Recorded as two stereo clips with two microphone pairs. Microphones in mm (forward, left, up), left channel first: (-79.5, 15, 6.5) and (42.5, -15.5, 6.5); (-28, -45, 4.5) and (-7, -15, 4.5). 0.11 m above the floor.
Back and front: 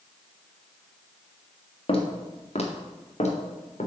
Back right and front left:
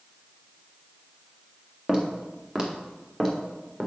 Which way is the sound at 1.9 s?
125° left.